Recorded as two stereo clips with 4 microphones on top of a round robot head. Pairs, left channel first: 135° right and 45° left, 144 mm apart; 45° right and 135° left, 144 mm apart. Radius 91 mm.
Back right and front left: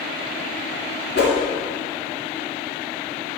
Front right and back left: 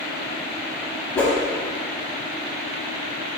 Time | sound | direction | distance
1.1 | a whoosh | 125° right | 0.6 m